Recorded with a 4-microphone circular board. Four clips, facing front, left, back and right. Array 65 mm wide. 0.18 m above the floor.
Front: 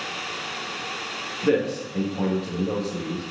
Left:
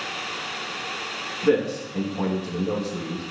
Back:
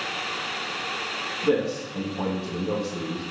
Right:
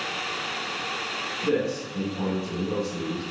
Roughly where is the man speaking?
Ahead left.